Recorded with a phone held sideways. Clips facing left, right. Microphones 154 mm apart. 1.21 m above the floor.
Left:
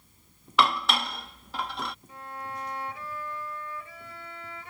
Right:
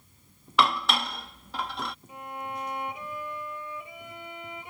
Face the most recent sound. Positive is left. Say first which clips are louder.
# right 2 dB
turn(degrees=-20)  # may be behind; listen again after turning